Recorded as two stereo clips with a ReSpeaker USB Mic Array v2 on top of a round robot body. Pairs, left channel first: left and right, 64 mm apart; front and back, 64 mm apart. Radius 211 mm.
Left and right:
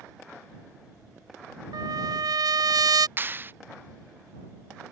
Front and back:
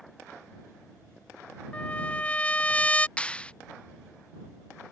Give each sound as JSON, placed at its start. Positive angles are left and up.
{"t": 1.7, "sound": "a trumpet", "azimuth_deg": -70}
{"t": 3.2, "sound": "a clap", "azimuth_deg": -60}